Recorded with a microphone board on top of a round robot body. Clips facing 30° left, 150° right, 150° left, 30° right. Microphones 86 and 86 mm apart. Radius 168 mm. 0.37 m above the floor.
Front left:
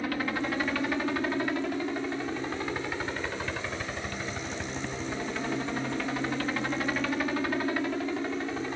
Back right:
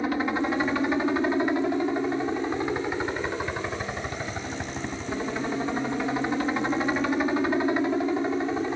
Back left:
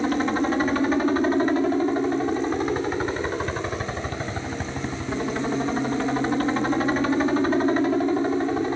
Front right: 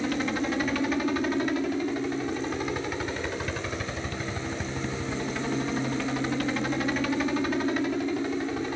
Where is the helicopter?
155° left.